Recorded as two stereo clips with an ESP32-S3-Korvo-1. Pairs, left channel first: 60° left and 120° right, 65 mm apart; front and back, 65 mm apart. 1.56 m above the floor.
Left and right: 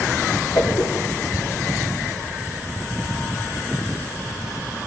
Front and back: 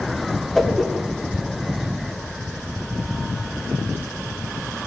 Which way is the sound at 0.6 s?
90° left.